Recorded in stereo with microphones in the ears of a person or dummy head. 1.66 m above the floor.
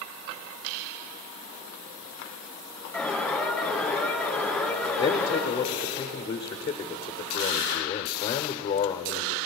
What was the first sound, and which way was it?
An alarm, centre (ahead or behind).